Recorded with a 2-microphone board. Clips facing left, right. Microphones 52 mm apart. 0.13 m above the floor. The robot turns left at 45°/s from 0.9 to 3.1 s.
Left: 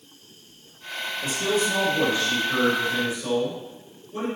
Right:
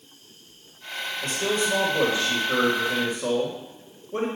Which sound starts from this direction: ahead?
A man speaking, at 1.2 s.